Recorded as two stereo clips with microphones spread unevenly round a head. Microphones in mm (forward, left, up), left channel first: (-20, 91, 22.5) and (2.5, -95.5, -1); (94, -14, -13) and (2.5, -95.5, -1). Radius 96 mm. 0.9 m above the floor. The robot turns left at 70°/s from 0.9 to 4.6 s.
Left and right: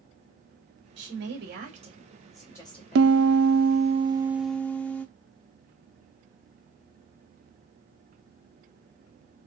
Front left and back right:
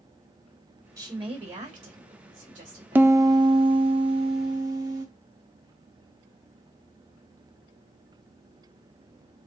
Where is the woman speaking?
75° right, 1.8 m; by 3.2 s 130° left, 1.8 m.